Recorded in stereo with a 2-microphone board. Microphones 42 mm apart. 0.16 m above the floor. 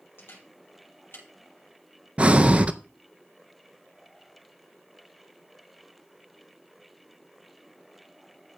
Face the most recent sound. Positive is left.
turn(degrees=-30)  # may be behind; listen again after turning